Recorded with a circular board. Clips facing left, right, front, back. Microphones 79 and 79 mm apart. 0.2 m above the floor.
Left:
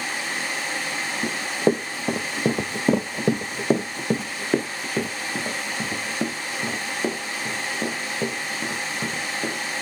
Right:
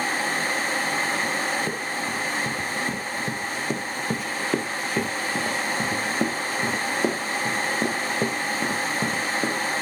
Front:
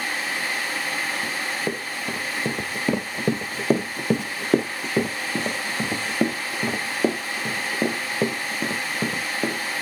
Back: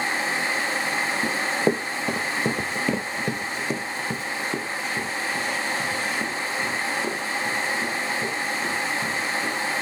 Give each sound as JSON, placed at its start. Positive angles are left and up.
{"t": 1.2, "sound": "running footsteps", "azimuth_deg": 120, "distance_m": 1.5}